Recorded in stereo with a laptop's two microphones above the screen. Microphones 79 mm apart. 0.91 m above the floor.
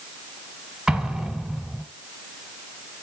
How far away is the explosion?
About 1.8 m.